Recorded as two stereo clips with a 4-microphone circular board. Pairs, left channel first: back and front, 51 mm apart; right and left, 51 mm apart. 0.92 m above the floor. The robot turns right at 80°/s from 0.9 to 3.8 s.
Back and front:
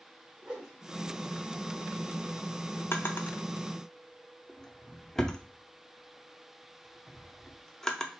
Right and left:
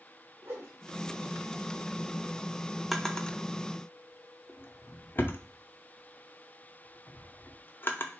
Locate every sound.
0.4 s a whoosh: 75° left, 1.1 m; by 1.1 s 90° left, 1.1 m
2.9 s a drawer: 175° right, 0.6 m; by 8.1 s 105° right, 0.6 m